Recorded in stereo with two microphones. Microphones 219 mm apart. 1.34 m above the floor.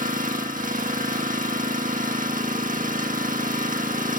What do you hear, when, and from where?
0.0 s an engine running: 40° right (ahead or behind), 1.5 m